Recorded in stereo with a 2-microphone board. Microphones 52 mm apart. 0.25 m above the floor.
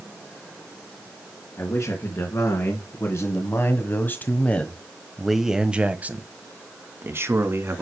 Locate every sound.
1.6 s a man speaking: 70° left (ahead or behind), 3 m; by 7.8 s 60° right (ahead or behind), 2.5 m